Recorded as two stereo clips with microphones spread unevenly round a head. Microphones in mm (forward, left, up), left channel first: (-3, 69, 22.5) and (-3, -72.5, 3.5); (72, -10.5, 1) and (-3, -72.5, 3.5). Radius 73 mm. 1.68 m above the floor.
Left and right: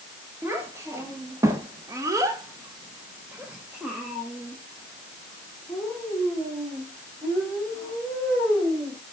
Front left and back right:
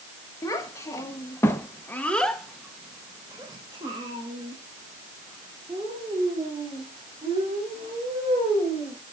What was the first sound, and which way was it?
A child speaking, 15° right.